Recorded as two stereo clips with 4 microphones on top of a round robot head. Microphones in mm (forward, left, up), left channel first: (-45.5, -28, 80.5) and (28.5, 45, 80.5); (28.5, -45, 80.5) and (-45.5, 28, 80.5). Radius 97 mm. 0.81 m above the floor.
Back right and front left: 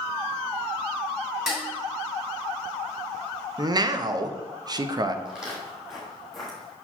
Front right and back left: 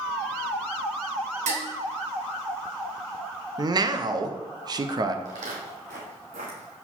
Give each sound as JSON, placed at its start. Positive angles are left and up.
{"t": 1.5, "sound": "dishes clattering", "azimuth_deg": 130, "distance_m": 2.0}
{"t": 3.6, "sound": "a man speaking", "azimuth_deg": 90, "distance_m": 0.7}
{"t": 5.2, "sound": "footsteps", "azimuth_deg": 125, "distance_m": 1.9}